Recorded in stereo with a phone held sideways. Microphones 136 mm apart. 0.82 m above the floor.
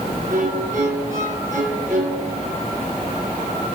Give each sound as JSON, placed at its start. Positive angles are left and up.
{"t": 0.3, "sound": "a violin", "side_deg": -70, "distance_m": 5.5}